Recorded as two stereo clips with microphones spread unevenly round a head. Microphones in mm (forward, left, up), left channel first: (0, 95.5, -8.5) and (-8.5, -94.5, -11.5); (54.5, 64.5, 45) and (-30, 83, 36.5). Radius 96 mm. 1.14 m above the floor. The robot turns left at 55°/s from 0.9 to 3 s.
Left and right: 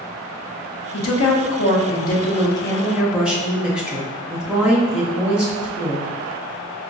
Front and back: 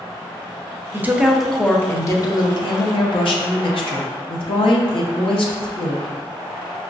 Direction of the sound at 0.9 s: 105° left.